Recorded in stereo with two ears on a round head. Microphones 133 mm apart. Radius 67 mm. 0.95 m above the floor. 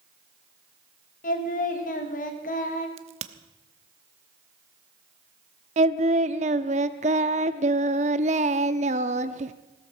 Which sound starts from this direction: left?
Singing, at 1.2 s.